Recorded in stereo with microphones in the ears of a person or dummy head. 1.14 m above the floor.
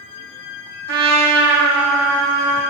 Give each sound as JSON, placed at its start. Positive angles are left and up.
{"t": 0.9, "sound": "a trumpet", "side_deg": -70, "distance_m": 1.8}